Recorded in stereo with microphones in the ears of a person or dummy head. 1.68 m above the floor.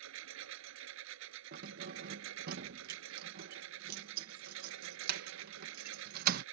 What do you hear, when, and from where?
0.0 s a lawn mower: 70° right (ahead or behind)
1.5 s keys jangling: 50° right (ahead or behind)